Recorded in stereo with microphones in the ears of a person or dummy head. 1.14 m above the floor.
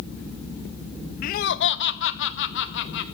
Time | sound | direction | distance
1.2 | laughter | 45° left (ahead or behind) | 0.9 m